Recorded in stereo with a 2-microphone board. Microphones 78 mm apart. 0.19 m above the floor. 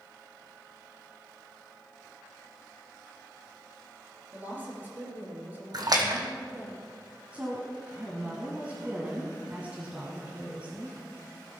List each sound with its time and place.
4.3 s a woman speaking: 20° right (ahead or behind), 4 m
5.7 s a splash: 60° right (ahead or behind), 1.7 m
7.3 s a woman speaking: 20° right (ahead or behind), 1.5 m